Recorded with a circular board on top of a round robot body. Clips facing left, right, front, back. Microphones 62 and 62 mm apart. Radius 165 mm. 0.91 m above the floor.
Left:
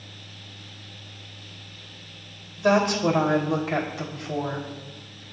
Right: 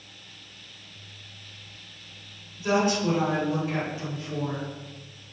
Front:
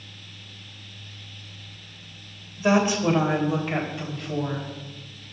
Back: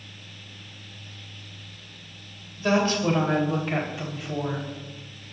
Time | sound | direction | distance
2.6 | a woman speaking | 70° left | 3 m